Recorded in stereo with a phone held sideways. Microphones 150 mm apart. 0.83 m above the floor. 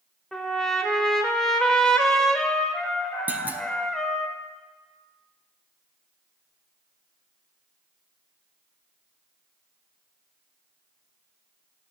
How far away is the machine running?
I don't hear a machine running.